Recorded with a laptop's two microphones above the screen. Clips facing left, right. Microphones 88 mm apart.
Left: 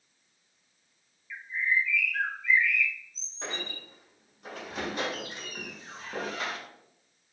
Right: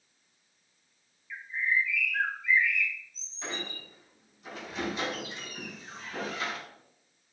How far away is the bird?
About 1.7 m.